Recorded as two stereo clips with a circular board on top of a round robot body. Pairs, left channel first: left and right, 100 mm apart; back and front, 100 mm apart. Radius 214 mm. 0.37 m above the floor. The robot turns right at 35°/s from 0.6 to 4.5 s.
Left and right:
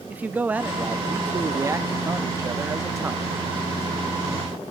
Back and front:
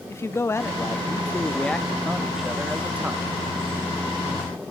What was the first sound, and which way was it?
A man speaking, 145° right.